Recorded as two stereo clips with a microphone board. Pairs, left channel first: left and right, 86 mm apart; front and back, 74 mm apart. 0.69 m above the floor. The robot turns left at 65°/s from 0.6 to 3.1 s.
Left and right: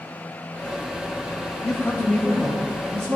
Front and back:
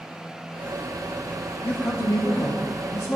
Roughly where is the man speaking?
Ahead left.